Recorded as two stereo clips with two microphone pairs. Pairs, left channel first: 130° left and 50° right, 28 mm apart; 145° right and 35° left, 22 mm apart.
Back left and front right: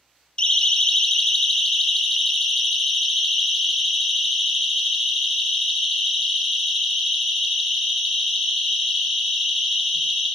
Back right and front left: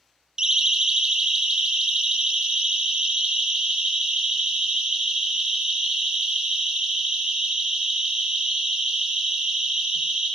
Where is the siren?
80° left, 3 m; by 10.3 s 30° left, 16 m.